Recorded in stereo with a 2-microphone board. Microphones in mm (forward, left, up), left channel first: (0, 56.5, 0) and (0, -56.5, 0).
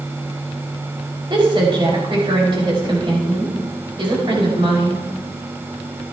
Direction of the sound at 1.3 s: 50° right (ahead or behind).